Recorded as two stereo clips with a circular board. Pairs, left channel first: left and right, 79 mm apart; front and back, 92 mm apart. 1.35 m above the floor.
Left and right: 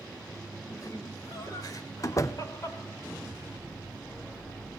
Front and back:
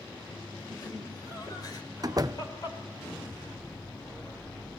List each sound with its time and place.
0.7 s laughter: 45° left, 6 m; by 2.8 s 40° left, 4.5 m
2.0 s a door slam: 135° left, 0.6 m